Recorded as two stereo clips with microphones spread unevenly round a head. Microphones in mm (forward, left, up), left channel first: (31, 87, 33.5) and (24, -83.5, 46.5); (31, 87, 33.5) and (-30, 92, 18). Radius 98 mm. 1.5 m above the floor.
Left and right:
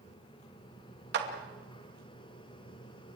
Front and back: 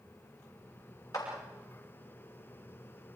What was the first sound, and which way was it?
A clap, 75° right.